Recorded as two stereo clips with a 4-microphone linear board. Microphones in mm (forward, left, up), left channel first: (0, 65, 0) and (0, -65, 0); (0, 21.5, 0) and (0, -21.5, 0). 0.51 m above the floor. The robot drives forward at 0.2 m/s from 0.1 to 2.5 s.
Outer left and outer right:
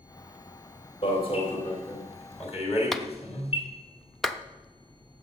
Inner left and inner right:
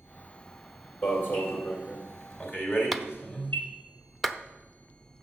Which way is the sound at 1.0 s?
45° left (ahead or behind).